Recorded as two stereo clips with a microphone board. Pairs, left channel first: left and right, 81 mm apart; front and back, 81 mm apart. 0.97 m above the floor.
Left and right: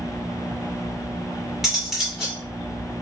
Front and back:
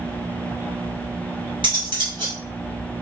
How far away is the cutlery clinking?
About 2.0 m.